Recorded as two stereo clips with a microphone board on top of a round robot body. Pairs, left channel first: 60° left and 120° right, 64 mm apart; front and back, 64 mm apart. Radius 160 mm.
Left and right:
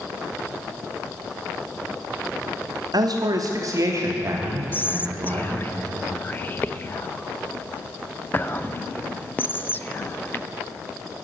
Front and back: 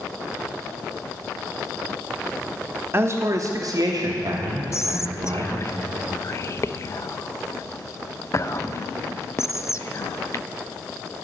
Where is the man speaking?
125° right, 1.3 m; by 5.5 s 175° left, 2.5 m.